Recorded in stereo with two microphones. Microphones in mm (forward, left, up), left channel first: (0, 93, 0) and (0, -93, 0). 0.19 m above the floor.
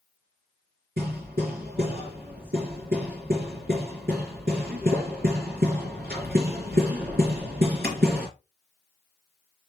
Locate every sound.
1.0 s hammering: 50° right (ahead or behind), 3 m